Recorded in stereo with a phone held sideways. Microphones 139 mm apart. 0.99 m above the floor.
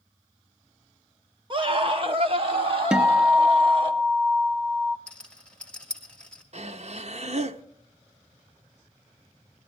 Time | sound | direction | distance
1.5 | a scream | 35° right (ahead or behind) | 0.9 m
2.9 | a guitar | 5° right (ahead or behind) | 0.6 m
5.1 | a rattle | 5° left (ahead or behind) | 2 m
6.5 | breathing | 50° right (ahead or behind) | 0.8 m